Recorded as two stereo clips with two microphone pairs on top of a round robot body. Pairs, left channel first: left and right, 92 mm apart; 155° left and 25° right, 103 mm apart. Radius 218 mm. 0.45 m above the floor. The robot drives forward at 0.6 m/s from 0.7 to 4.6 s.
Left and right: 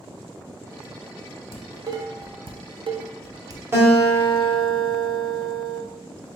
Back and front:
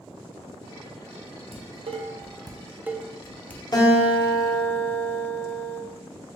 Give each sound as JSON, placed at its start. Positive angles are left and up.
{"t": 1.5, "sound": "dishes clattering", "azimuth_deg": -35, "distance_m": 1.0}
{"t": 3.7, "sound": "a guitar", "azimuth_deg": -155, "distance_m": 1.2}